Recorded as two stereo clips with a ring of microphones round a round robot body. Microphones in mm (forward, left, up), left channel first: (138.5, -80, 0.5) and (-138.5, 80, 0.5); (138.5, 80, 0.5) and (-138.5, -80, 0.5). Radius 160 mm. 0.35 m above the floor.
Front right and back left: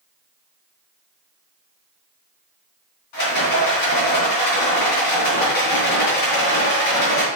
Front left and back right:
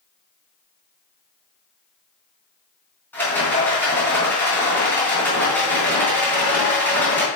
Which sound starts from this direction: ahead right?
A rattle, at 3.1 s.